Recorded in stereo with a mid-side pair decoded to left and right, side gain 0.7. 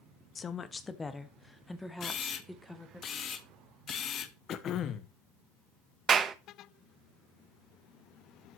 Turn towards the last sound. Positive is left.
turn(degrees=-30)